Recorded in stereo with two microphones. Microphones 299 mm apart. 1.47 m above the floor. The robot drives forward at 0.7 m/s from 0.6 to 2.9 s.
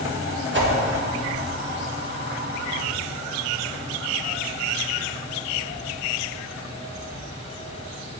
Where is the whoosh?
40° right (ahead or behind), 1.2 m.